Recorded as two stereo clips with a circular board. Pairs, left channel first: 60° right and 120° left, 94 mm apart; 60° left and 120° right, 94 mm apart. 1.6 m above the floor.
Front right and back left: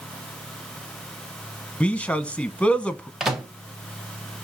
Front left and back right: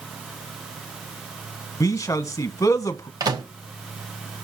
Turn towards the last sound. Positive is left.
turn(degrees=-155)